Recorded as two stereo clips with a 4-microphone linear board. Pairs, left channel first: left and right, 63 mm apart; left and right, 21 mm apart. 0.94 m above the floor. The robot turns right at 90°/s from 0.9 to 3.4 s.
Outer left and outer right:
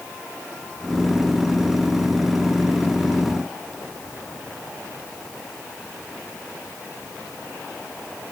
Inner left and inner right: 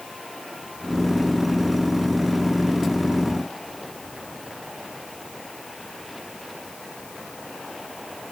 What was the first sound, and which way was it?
Only background noise.